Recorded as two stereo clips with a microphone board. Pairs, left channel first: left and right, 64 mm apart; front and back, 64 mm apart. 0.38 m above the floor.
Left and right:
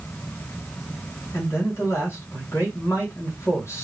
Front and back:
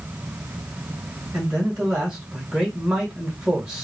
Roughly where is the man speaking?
Left.